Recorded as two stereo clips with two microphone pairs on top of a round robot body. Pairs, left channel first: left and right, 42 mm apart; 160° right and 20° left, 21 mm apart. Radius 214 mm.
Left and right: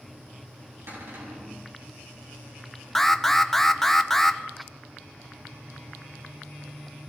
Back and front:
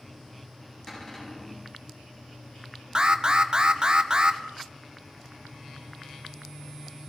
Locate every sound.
0.9 s a cupboard door: 95° right, 7 m
3.0 s an alarm: 15° left, 1.2 m